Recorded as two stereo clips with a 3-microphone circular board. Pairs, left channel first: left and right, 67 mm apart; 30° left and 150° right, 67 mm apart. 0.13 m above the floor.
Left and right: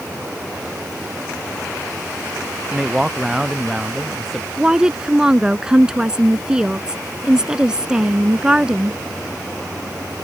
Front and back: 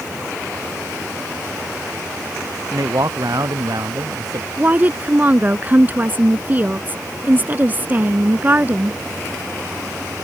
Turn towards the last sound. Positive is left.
turn(degrees=-155)